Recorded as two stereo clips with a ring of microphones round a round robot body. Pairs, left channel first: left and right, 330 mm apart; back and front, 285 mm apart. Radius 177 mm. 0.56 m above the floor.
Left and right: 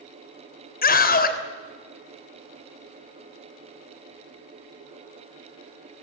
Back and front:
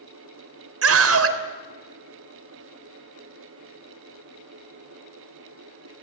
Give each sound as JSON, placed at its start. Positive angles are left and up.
{"t": 0.8, "sound": "a scream", "azimuth_deg": 30, "distance_m": 3.0}